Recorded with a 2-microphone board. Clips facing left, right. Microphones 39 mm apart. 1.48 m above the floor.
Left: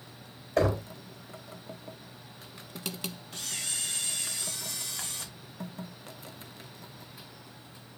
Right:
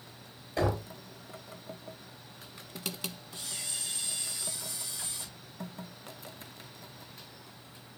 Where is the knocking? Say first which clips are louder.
Left 4 dB; 65° left (ahead or behind), 3 m.